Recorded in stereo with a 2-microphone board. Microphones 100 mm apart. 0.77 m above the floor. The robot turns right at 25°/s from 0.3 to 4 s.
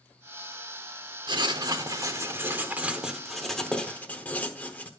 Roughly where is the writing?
Ahead right.